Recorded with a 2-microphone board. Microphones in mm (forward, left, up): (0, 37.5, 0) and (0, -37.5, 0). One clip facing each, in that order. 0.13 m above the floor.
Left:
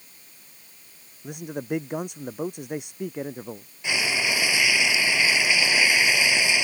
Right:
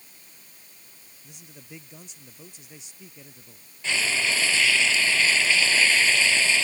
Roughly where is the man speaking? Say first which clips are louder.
Left 18 dB; left.